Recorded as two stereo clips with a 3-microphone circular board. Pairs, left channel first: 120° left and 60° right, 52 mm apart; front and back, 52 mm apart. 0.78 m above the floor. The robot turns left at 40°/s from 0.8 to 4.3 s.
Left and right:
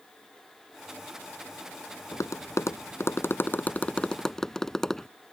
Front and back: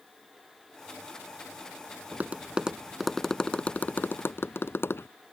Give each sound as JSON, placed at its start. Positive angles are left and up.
{"t": 2.1, "sound": "tapping", "azimuth_deg": 130}